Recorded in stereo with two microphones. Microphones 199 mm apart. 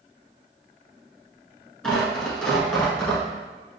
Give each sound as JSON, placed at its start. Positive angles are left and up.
{"t": 1.8, "sound": "tearing paper", "side_deg": 5, "distance_m": 1.5}